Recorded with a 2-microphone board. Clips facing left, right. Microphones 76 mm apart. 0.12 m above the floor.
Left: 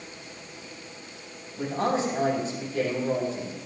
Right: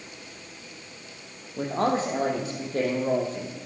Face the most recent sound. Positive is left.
turn(degrees=-45)  # may be behind; listen again after turning